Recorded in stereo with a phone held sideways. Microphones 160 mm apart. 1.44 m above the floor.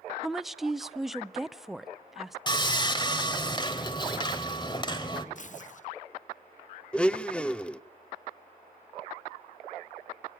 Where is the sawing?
30° left (ahead or behind), 1.6 m.